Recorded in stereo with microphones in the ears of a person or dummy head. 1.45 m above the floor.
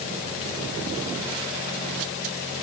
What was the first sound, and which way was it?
Only background noise.